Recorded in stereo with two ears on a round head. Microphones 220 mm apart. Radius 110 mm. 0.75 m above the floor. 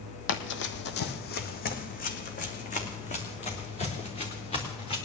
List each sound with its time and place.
0.3 s running footsteps: 50° left (ahead or behind), 1.3 m; by 5.0 s 25° left (ahead or behind), 4 m